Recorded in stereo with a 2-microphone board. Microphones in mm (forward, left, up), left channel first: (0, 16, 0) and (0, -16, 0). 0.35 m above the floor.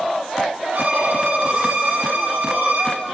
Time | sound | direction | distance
0.7 | a violin | 80° right | 8 m